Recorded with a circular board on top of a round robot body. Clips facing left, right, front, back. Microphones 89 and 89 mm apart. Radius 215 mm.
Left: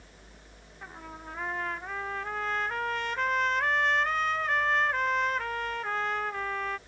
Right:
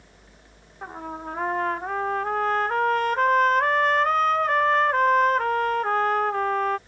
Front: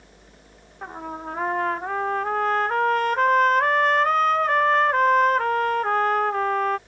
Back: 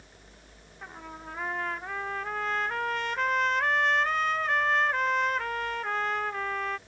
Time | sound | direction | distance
0.8 | a trumpet | 45° right | ?